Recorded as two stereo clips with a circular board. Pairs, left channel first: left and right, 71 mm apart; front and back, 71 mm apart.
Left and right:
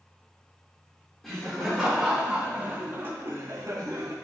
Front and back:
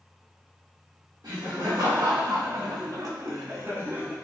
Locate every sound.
1.2 s laughter: 175° left, 3 m; by 4.1 s 115° right, 1.8 m